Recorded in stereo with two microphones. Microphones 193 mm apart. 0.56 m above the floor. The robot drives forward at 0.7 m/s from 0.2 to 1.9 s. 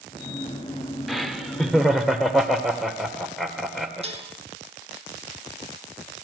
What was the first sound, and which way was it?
Laughter, centre (ahead or behind).